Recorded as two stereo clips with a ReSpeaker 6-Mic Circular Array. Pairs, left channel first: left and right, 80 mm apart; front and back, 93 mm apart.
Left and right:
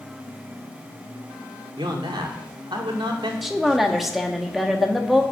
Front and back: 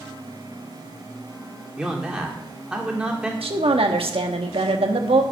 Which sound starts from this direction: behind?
A woman speaking, at 3.4 s.